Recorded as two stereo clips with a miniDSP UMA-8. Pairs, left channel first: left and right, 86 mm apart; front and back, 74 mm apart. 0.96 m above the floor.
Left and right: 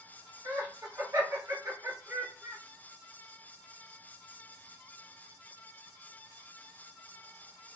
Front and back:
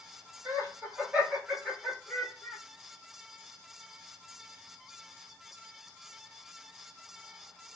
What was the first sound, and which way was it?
Laughter, 135° right.